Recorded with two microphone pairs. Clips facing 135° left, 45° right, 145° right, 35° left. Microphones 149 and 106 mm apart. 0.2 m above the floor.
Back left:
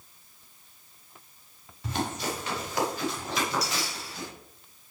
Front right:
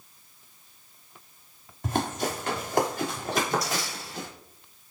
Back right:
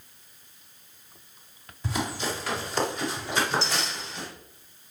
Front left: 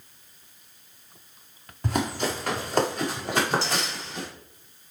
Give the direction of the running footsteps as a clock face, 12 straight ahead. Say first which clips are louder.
Front right 3 dB, front left 3 dB; 12 o'clock.